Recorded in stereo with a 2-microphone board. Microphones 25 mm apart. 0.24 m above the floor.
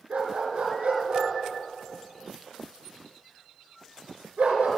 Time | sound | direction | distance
0.1 | a dog barking | 75° right (ahead or behind) | 1.8 m